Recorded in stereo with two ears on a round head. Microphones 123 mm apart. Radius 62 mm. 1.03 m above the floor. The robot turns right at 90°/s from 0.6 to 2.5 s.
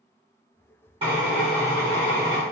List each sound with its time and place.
1.0 s a drill: 40° right, 1.0 m; by 2.4 s 85° left, 1.0 m